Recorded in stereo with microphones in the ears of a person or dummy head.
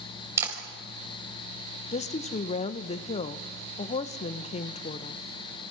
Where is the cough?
No cough in this recording.